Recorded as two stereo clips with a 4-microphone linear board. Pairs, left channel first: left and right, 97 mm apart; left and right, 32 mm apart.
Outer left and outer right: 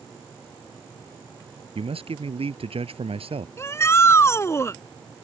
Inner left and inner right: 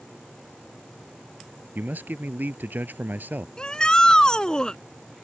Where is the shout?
30° left (ahead or behind).